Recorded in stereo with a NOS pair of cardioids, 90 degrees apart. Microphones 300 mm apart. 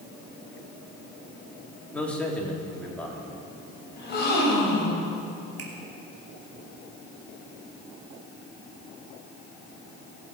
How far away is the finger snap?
About 3 m.